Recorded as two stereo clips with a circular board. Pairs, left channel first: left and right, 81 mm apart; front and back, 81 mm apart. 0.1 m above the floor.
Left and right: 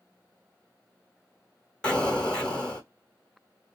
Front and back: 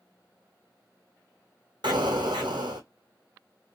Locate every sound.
1.8 s an explosion: 165° left, 1.1 m